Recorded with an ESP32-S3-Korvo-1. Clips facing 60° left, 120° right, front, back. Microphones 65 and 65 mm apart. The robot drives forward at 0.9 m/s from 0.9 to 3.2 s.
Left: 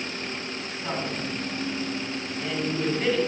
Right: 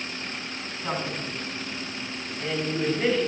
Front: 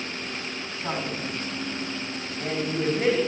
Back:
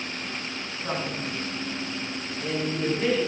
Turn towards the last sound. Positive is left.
turn(degrees=-40)